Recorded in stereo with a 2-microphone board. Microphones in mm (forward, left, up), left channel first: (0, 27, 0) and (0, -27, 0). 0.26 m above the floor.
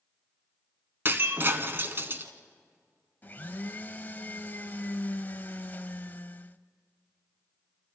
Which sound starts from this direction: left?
A blender, at 3.2 s.